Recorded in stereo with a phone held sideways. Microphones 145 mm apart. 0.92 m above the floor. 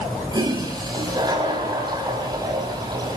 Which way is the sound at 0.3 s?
30° right (ahead or behind).